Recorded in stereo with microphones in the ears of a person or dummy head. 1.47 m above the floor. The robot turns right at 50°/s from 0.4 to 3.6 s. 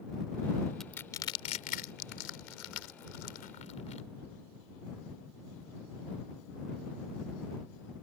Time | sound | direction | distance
0.8 | crushing | 5° left (ahead or behind) | ?